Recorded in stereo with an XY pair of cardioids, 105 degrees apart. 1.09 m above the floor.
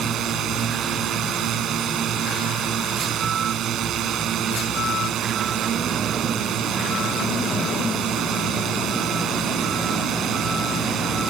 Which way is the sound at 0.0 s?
70° right.